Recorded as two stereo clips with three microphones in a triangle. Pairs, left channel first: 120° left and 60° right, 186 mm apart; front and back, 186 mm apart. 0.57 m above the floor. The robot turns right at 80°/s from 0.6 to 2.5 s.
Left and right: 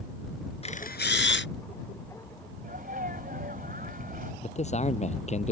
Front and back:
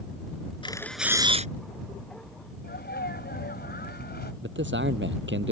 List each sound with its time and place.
0.6 s a camera shutter: 65° left; by 1.5 s 130° left
2.6 s a sneeze: 25° right
4.4 s a man speaking: 170° left